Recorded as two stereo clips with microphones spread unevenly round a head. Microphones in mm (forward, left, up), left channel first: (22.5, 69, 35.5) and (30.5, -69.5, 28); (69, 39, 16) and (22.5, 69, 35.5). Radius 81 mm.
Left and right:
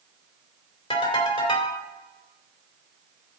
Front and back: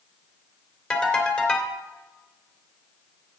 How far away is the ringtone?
About 2.5 m.